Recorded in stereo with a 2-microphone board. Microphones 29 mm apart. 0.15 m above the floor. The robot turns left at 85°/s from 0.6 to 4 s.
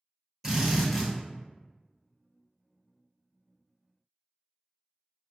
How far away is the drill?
About 1.2 m.